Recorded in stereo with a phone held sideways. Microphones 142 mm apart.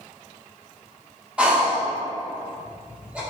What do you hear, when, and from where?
1.4 s breathing: 10° right (ahead or behind), 0.8 m